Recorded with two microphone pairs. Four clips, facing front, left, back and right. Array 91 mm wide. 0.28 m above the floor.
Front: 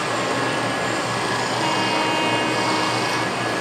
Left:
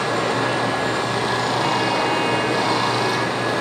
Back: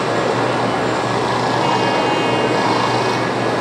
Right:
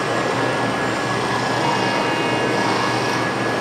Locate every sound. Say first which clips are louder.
0.0 s running water: right 1 dB, back 5 dB; 175° right, 3.5 m